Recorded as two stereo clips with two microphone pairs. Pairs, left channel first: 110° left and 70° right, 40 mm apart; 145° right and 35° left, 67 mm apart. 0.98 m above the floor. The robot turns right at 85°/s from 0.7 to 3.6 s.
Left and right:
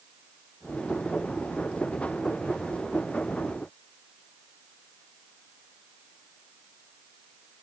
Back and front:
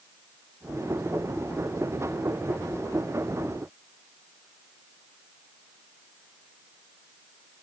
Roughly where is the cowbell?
I don't hear a cowbell.